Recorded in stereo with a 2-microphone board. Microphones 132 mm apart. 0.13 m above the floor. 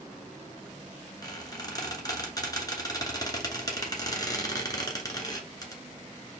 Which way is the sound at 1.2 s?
25° left (ahead or behind).